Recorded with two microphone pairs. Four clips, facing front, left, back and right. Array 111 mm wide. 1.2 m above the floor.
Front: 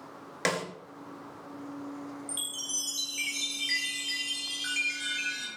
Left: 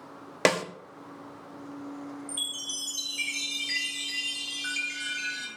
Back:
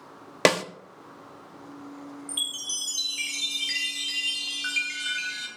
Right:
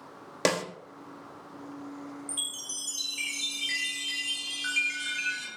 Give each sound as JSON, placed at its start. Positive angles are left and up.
{"t": 0.5, "sound": "a snare drum", "azimuth_deg": 170, "distance_m": 1.1}
{"t": 2.3, "sound": "a chime", "azimuth_deg": -165, "distance_m": 3.0}